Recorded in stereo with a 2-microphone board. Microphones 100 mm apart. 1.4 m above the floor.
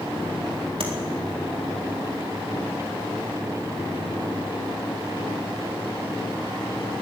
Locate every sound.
0.8 s tapping: 70° right (ahead or behind), 3.5 m